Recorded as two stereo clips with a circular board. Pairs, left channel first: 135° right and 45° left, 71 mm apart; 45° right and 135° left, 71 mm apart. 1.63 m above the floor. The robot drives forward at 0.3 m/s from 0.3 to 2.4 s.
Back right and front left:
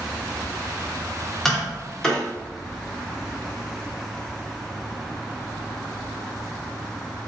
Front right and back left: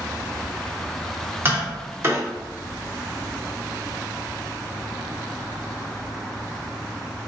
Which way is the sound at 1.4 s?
140° left.